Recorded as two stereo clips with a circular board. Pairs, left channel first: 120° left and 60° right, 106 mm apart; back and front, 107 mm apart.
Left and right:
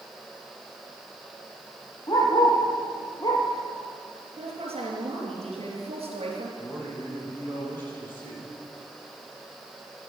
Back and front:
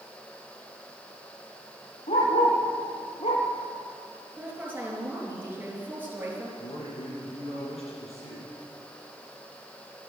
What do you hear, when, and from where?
2.1 s a dog barking: 175° left, 3.5 m; by 3.5 s 170° left, 2.5 m
4.4 s a woman speaking: 70° right, 4 m
6.6 s a man speaking: 170° right, 7 m